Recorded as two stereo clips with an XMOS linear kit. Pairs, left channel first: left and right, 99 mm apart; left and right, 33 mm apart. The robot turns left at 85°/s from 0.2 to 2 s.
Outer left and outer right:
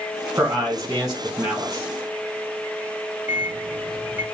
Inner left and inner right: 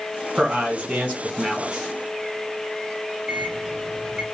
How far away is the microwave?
About 0.9 m.